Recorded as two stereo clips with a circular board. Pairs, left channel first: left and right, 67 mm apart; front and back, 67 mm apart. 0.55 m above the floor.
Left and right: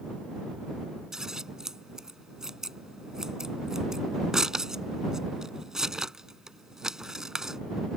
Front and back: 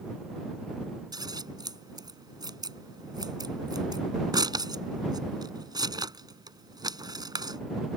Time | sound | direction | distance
1.1 | scissors | 175° right | ?